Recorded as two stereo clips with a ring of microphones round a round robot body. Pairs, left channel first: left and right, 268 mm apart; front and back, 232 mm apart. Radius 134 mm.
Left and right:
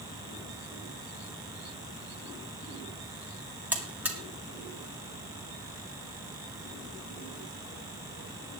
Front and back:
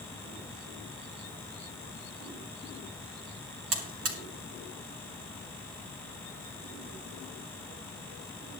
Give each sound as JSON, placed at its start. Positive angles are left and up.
{"t": 3.7, "sound": "a buzzer", "azimuth_deg": -175, "distance_m": 2.0}